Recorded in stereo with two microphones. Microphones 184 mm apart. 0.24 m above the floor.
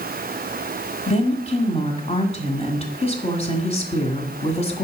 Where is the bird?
I don't hear a bird.